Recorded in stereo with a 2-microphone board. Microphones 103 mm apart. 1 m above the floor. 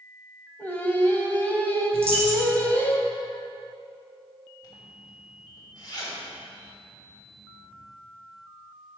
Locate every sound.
0.6 s singing: 20° left (ahead or behind), 0.9 m
1.9 s a dropped coin: 60° left (ahead or behind), 2.0 m
4.6 s a zipper: 45° left (ahead or behind), 1.6 m